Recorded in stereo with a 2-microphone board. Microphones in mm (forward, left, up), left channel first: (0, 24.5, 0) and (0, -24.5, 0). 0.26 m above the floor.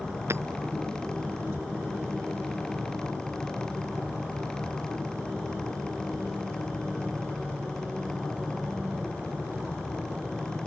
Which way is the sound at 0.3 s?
60° right (ahead or behind).